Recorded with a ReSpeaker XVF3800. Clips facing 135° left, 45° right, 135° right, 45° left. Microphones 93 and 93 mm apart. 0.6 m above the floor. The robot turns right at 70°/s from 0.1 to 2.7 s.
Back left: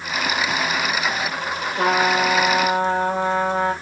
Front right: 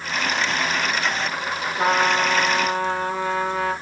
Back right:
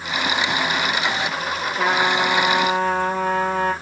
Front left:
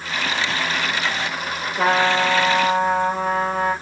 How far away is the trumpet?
About 4 m.